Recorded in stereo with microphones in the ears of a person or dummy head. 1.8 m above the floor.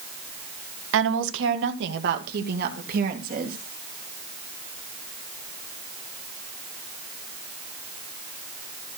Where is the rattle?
I don't hear a rattle.